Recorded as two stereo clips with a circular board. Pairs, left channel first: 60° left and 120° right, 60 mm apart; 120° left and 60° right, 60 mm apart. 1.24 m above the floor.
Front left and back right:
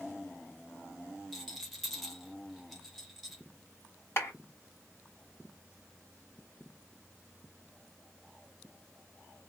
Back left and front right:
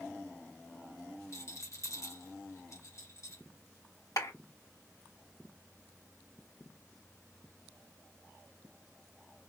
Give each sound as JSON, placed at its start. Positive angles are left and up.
{"t": 1.3, "sound": "a rattle", "azimuth_deg": 150, "distance_m": 1.7}
{"t": 4.2, "sound": "a clap", "azimuth_deg": 105, "distance_m": 2.5}